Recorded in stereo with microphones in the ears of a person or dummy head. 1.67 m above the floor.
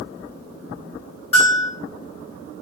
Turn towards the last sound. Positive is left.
turn(degrees=25)  # may be behind; listen again after turning